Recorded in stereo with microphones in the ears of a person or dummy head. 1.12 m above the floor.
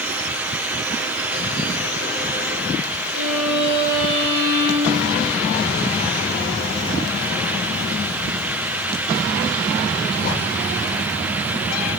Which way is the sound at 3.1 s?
75° right (ahead or behind).